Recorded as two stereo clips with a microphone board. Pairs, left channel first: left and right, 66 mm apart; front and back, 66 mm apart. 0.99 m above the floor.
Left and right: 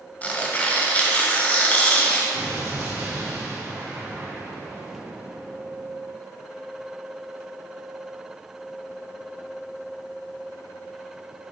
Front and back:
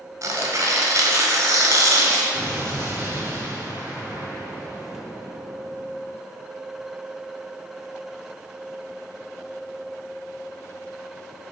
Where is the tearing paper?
150° left, 1.8 m.